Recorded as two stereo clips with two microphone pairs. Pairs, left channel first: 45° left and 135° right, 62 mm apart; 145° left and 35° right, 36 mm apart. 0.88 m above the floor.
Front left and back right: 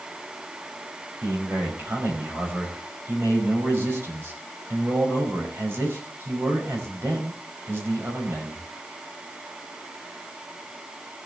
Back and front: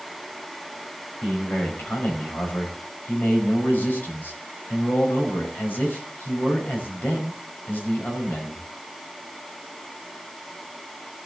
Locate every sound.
1.2 s a man speaking: 175° left, 5 m